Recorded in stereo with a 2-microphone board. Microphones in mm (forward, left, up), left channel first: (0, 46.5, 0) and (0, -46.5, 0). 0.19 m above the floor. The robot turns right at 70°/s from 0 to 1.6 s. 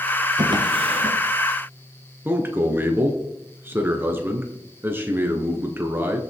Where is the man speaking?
25° right (ahead or behind), 2.5 m.